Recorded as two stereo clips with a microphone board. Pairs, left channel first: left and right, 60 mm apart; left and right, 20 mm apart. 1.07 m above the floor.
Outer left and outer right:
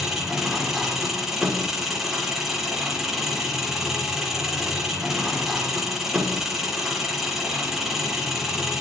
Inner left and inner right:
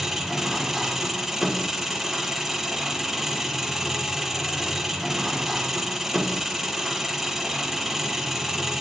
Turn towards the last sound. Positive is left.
turn(degrees=-5)  # may be behind; listen again after turning